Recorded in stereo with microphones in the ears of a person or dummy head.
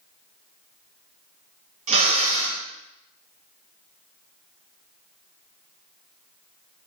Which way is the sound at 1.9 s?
40° right (ahead or behind).